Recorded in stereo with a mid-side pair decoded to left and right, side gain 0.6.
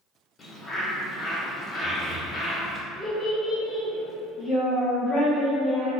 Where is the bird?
30° left, 0.7 m.